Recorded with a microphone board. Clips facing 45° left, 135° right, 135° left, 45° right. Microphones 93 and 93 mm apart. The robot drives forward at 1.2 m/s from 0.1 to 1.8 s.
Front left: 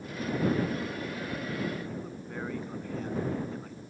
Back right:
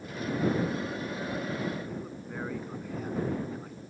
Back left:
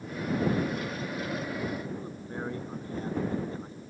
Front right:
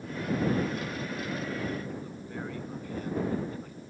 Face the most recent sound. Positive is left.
turn(degrees=150)